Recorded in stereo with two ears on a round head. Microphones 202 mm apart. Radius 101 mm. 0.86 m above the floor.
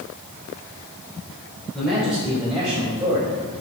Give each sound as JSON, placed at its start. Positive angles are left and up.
{"t": 1.7, "sound": "a man speaking", "side_deg": -5, "distance_m": 5.0}